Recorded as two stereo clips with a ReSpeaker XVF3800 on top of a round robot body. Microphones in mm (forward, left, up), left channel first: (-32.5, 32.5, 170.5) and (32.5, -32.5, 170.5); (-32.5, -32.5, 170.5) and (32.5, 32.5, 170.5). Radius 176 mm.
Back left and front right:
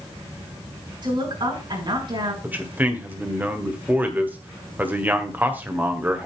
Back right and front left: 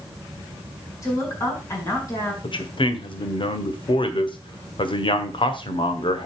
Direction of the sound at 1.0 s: 80° right.